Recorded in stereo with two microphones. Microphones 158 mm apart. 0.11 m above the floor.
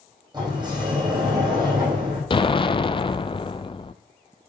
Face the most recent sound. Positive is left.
turn(degrees=35)  # may be behind; listen again after turning